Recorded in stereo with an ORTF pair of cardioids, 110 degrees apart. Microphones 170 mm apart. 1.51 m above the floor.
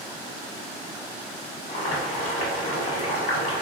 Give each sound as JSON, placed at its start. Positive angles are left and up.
{"t": 1.7, "sound": "boiling", "azimuth_deg": 50, "distance_m": 1.2}